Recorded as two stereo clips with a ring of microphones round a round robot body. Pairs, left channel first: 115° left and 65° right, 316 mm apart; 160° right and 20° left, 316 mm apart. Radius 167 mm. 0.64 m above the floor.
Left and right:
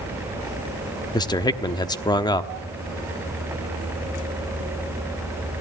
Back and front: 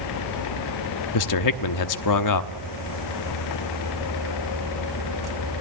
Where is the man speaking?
170° right, 1.0 m.